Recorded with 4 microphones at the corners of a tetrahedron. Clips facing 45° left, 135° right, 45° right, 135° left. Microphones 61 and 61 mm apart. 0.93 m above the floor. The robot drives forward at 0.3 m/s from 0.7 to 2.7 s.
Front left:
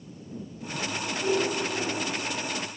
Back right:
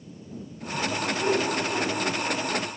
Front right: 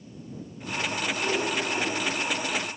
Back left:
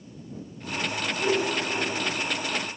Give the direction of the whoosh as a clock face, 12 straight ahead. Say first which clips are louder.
Even, back left 4 dB; 5 o'clock.